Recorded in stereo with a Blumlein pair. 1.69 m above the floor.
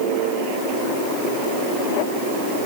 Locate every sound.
Only background noise.